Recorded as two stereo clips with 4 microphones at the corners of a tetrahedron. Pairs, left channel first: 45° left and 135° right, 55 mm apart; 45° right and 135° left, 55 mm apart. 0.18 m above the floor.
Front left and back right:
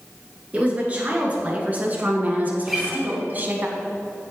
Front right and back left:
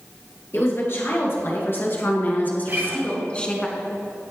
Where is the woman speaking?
75° right, 3 m; by 3.7 s 110° right, 1.4 m.